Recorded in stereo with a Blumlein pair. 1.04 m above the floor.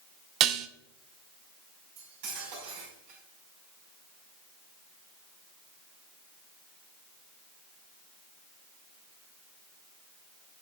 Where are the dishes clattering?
35° right, 0.6 m.